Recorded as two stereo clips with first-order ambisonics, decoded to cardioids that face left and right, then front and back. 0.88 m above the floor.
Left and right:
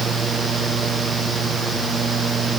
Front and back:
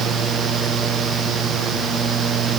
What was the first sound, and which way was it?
Only background noise.